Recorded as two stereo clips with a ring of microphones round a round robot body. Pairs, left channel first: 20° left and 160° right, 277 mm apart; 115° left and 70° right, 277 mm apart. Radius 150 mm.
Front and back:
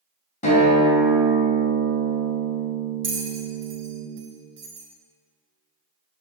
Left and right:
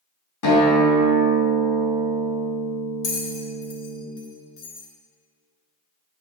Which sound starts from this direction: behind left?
A bell, at 3.0 s.